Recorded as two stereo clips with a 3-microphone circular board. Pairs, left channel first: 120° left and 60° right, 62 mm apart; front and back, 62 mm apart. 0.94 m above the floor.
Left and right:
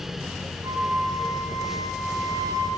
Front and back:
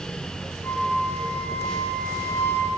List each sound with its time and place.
0.6 s a flute: 60° right, 1.2 m